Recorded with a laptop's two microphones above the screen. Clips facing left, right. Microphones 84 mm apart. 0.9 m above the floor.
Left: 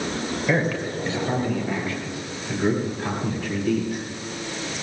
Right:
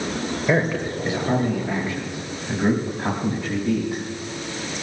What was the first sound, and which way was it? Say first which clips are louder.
A man speaking: right 2 dB; 15° right (ahead or behind).